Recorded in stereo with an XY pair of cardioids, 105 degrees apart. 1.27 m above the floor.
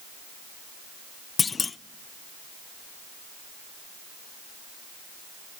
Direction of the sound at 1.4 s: 30° left.